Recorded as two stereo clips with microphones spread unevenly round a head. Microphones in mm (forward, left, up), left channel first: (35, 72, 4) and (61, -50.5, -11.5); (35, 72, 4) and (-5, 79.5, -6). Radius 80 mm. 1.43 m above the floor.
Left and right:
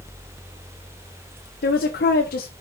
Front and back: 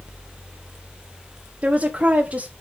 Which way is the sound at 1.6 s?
115° left.